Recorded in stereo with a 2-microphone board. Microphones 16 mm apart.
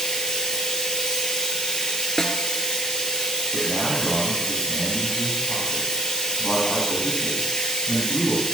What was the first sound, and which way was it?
Running water, 60° left (ahead or behind).